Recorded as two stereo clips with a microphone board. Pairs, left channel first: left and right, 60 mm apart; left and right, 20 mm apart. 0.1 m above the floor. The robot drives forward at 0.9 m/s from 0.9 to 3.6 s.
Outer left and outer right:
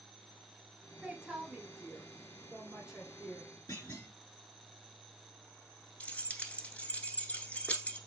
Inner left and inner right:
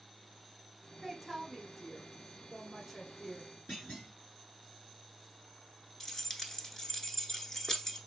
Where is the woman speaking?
20° right (ahead or behind), 1.4 m; by 3.5 s 10° right (ahead or behind), 3 m.